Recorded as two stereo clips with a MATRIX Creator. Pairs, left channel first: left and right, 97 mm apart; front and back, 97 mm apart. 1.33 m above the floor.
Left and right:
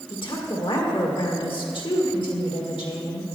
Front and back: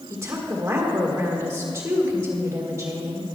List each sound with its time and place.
0.1 s a woman speaking: 115° left, 1.7 m